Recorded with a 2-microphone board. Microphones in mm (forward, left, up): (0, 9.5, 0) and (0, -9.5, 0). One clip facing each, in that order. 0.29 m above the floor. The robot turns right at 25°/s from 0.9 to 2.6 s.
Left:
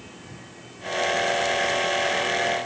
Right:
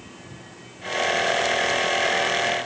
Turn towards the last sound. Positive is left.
No sound to turn to.